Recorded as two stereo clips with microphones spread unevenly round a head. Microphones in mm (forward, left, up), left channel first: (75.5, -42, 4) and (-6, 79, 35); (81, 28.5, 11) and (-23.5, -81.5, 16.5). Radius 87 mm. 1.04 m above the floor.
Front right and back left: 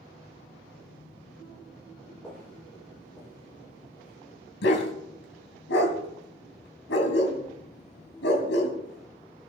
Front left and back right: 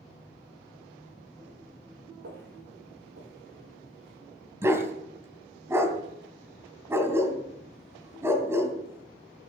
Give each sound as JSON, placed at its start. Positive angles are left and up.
{"t": 2.2, "sound": "footsteps", "azimuth_deg": -150, "distance_m": 5.0}
{"t": 4.6, "sound": "a dog barking", "azimuth_deg": -60, "distance_m": 3.0}